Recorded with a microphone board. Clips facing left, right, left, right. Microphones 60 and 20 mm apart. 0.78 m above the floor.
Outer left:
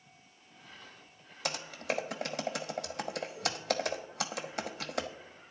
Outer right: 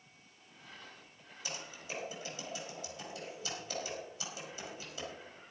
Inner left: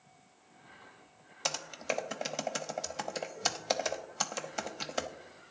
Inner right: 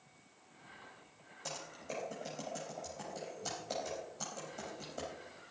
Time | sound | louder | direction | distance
1.4 | typing on a keyboard | outer left 9 dB, inner left 10 dB | 60° left (ahead or behind) | 0.9 m